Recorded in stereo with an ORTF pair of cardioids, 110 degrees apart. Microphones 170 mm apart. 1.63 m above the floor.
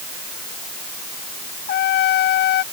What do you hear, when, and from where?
1.7 s a trumpet: 65° left